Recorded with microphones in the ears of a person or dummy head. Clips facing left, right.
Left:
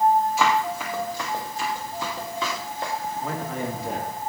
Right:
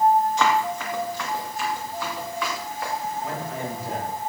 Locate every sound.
0.4 s running footsteps: 5° left (ahead or behind), 3.5 m; by 2.9 s 25° left (ahead or behind), 5 m
3.2 s a man speaking: 85° left, 4 m